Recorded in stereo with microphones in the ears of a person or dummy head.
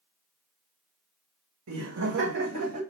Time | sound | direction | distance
1.7 | laughter | 75° right (ahead or behind) | 1.2 m